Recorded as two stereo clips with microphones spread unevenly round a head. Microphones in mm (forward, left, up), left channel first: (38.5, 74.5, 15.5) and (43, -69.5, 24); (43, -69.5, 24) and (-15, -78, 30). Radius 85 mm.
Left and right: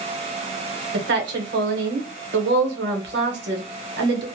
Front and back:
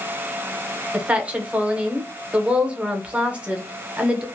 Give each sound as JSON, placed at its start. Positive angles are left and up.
{"t": 0.9, "sound": "a woman speaking", "azimuth_deg": -100, "distance_m": 0.9}